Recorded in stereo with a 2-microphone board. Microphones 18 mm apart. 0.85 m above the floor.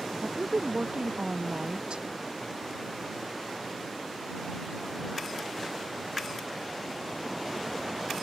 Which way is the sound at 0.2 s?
60° right (ahead or behind).